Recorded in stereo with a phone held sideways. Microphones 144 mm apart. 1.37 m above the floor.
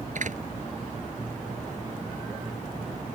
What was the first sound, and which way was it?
A door slam, 60° right (ahead or behind).